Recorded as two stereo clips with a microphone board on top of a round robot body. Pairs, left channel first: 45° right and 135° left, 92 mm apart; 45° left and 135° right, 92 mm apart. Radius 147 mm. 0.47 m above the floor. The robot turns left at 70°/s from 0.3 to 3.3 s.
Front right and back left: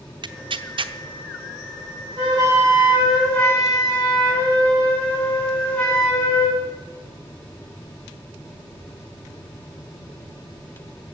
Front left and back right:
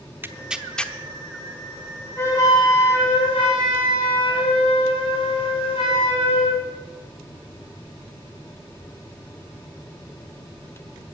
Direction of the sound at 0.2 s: 160° left.